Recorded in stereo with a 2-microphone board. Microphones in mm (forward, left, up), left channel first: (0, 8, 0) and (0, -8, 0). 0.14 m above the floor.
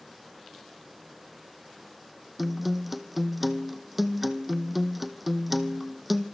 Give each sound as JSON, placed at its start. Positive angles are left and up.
{"t": 2.4, "sound": "a guitar", "side_deg": -10, "distance_m": 1.7}